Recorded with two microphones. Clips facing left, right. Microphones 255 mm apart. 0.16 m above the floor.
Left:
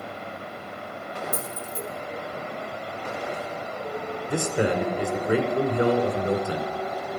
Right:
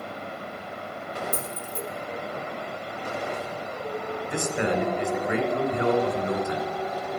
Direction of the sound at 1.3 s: 60° right (ahead or behind).